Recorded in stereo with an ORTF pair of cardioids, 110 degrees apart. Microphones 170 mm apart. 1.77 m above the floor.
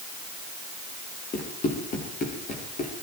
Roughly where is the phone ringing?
No phone ringing in this recording.